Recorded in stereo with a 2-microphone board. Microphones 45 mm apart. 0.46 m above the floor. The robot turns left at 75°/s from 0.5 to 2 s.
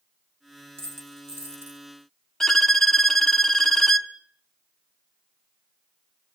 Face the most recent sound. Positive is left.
turn(degrees=15)  # may be behind; listen again after turning